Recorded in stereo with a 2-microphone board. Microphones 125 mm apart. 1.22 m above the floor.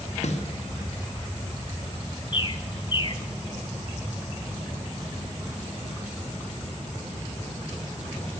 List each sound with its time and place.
0.2 s a snare drum: 65° left (ahead or behind), 1.6 m
2.3 s a bird: 35° left (ahead or behind), 0.6 m